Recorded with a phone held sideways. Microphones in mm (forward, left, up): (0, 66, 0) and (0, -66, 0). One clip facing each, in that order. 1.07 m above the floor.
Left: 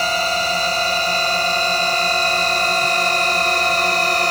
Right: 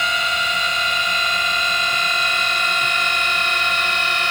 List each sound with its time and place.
0.0 s a drone: 35° left (ahead or behind)